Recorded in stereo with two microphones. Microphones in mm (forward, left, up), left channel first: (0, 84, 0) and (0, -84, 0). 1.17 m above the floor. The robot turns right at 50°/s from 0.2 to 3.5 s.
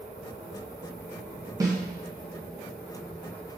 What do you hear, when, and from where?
1.6 s a snare drum: 20° right (ahead or behind), 0.7 m; by 1.8 s 15° right (ahead or behind), 0.7 m